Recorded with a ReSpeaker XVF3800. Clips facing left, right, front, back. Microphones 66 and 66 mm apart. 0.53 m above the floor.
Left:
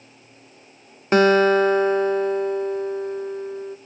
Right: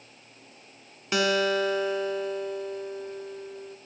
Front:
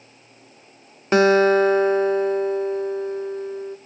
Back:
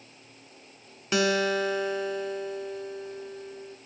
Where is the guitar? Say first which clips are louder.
Left 9 dB, front 10 dB; 40° left, 0.8 m.